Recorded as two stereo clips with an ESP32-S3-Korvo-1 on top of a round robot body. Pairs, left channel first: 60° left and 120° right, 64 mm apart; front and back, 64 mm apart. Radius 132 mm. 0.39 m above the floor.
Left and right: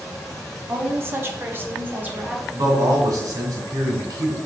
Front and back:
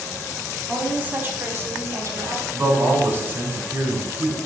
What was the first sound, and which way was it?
A woman speaking, 120° right.